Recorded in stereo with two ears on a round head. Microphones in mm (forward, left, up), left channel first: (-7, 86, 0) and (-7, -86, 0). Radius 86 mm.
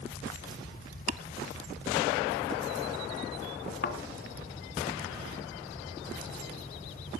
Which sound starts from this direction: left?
A thud, at 3.8 s.